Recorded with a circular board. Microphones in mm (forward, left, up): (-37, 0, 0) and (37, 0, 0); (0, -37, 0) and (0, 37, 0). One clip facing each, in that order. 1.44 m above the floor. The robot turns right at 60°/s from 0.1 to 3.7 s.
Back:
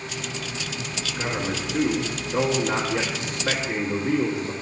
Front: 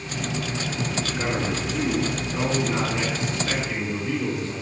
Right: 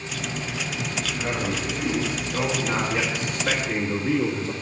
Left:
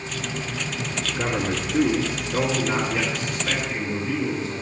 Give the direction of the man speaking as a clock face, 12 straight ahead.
10 o'clock.